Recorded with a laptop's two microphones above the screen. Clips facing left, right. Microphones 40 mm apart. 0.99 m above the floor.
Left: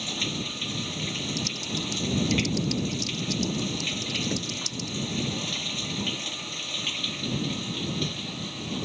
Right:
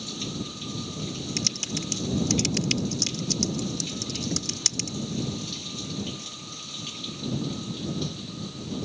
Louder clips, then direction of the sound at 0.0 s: Left 4 dB; 45° left (ahead or behind).